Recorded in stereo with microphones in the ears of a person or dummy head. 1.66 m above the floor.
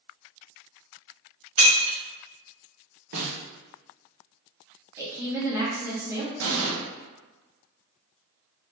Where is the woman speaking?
10° right (ahead or behind), 1.1 m.